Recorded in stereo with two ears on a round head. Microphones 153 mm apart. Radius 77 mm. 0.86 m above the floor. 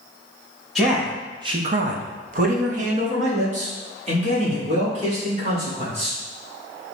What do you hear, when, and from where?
0.8 s a man speaking: centre (ahead or behind), 0.8 m; by 6.2 s 35° right (ahead or behind), 3.5 m